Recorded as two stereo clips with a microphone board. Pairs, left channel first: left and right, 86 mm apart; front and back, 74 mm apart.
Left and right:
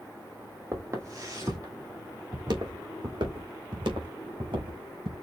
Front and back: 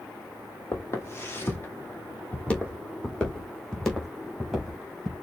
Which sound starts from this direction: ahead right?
Footsteps, at 0.7 s.